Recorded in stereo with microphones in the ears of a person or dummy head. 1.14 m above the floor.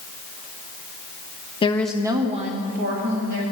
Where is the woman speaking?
30° left (ahead or behind), 0.6 m; by 3.4 s 50° right (ahead or behind), 2 m.